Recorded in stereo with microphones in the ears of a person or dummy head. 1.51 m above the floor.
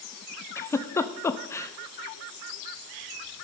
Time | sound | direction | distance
0.6 | a giggle | 15° left (ahead or behind) | 0.6 m